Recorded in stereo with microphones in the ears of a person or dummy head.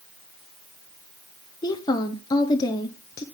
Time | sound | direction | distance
1.6 | a woman speaking | 20° left (ahead or behind) | 0.8 m